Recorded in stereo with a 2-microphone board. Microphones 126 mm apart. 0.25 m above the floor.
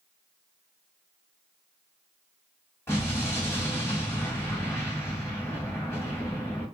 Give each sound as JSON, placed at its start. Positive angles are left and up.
{"t": 2.9, "sound": "an explosion", "side_deg": 20, "distance_m": 1.4}